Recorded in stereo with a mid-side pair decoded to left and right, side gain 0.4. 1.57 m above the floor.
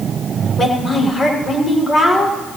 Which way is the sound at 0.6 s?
40° left.